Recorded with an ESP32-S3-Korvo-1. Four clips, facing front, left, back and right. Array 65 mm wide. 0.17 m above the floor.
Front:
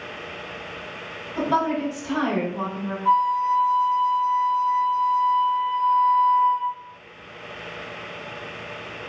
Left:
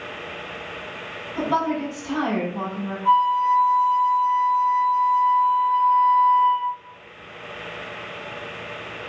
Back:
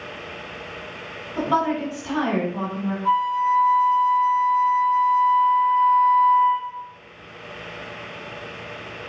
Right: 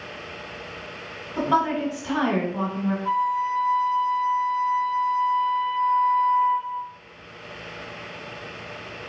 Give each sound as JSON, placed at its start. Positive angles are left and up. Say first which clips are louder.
{"t": 1.4, "sound": "a woman speaking", "louder": "right 1 dB, back 1 dB", "azimuth_deg": -145, "distance_m": 1.4}
{"t": 3.0, "sound": "a flute", "louder": "left 8 dB, front 1 dB", "azimuth_deg": 140, "distance_m": 1.0}